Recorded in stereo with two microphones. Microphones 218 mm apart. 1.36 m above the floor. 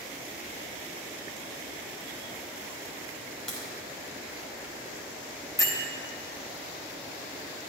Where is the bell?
15° left (ahead or behind), 1.0 m.